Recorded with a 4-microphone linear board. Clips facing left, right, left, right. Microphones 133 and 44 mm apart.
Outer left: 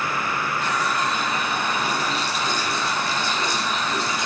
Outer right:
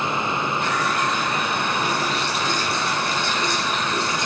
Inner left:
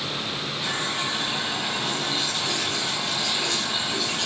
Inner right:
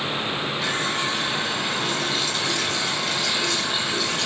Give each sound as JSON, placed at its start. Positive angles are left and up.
{"t": 0.6, "sound": "a running tap", "side_deg": -60, "distance_m": 3.0}